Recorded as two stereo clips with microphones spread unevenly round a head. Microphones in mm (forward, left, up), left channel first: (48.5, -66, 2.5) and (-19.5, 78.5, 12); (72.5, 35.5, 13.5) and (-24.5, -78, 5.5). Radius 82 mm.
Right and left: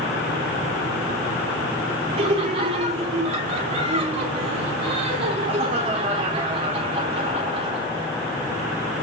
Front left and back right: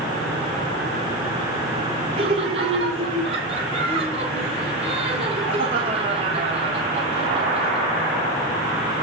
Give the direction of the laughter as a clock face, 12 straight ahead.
6 o'clock.